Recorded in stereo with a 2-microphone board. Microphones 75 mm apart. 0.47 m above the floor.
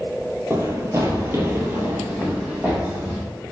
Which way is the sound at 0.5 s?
35° right (ahead or behind).